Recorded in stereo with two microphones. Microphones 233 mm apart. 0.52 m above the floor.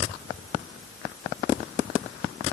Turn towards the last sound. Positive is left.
No sound to turn to.